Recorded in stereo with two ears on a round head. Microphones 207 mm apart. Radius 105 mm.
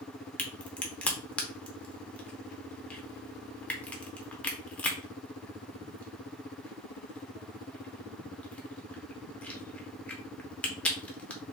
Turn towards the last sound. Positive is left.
turn(degrees=5)  # may be behind; listen again after turning